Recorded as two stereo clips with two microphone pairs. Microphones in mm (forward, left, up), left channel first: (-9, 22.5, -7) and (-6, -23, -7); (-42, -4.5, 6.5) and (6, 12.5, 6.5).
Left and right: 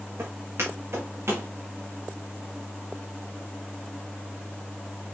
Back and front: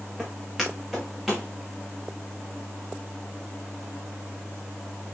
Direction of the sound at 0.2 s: 65° right.